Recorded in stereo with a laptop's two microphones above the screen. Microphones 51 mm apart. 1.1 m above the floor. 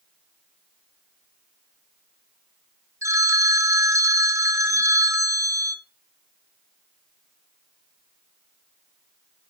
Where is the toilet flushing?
I don't hear a toilet flushing.